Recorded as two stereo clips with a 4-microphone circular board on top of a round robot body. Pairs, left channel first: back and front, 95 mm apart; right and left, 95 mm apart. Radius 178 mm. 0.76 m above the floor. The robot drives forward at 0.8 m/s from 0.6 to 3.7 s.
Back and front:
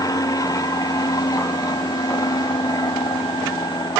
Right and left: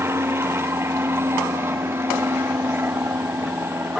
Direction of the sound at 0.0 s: 145° left.